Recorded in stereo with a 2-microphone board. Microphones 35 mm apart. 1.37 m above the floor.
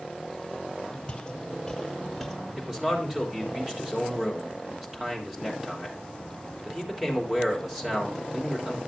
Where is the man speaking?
20° right (ahead or behind), 3 m.